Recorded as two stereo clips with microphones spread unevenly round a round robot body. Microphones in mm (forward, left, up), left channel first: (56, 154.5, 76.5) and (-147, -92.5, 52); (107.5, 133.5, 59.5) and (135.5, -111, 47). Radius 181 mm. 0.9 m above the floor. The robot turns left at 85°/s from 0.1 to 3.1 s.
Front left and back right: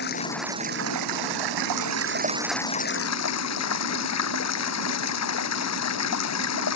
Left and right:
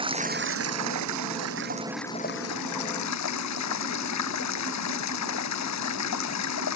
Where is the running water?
15° right; by 6.8 s 90° left.